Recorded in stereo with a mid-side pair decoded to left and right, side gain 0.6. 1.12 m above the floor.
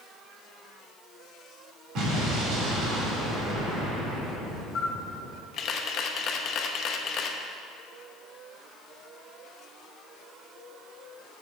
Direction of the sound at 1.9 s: 60° right.